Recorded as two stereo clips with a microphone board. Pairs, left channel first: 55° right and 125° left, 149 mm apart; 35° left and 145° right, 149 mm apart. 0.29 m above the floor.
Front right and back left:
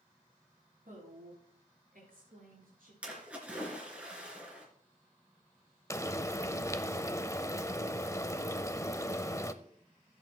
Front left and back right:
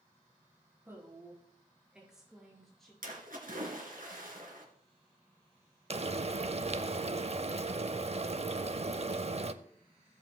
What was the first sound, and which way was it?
A woman speaking, 140° left.